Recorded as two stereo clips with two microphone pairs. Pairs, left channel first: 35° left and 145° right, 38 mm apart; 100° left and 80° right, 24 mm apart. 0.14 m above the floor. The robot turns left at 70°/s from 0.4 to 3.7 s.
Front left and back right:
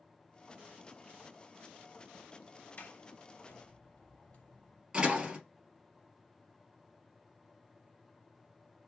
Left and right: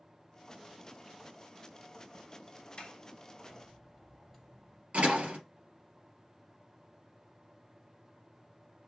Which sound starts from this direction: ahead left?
A sliding door, at 2.8 s.